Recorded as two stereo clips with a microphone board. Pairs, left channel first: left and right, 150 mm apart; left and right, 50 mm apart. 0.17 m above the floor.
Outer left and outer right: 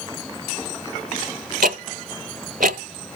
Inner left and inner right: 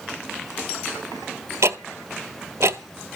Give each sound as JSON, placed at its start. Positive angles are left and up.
{"t": 1.6, "sound": "ticking", "side_deg": -70, "distance_m": 0.6}